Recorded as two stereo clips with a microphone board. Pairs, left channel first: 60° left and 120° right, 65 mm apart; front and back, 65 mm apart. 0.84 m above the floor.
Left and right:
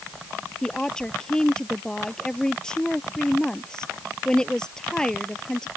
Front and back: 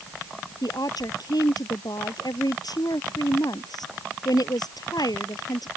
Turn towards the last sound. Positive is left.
turn(degrees=-20)